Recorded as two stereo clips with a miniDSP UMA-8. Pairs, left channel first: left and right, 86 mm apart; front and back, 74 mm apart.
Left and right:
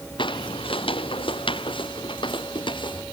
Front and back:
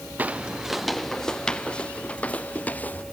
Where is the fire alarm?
No fire alarm in this recording.